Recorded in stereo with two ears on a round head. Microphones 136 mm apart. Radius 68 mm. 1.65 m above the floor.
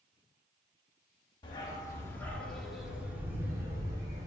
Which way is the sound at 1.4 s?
30° left (ahead or behind).